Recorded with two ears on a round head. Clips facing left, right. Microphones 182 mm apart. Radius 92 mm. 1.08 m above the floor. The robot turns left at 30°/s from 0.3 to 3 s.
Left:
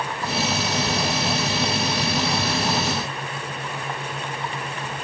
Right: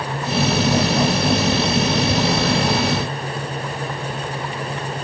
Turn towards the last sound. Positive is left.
No sound to turn to.